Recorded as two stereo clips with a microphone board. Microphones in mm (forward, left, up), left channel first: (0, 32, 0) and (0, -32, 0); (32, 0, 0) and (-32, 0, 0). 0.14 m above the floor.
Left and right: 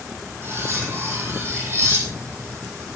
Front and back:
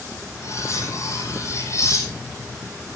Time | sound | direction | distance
0.4 | cutlery clinking | 40° right | 3.5 m